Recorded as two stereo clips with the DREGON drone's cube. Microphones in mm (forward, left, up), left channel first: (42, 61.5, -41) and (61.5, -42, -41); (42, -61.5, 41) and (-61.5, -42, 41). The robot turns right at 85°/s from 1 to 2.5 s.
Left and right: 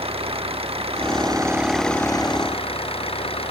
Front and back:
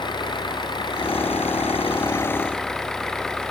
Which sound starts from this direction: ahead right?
An engine running, at 0.0 s.